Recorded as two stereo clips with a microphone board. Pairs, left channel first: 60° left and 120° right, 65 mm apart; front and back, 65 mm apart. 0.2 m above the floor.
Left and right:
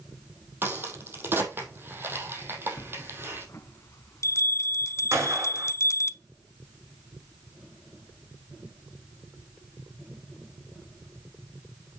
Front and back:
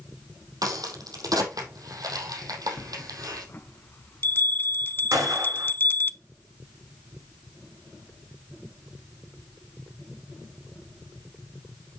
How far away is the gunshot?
About 5.5 m.